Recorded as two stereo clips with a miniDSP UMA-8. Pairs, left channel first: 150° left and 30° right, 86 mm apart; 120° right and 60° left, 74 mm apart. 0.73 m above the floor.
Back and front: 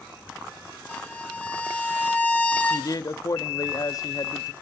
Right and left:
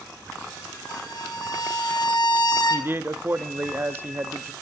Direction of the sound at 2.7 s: 115° left.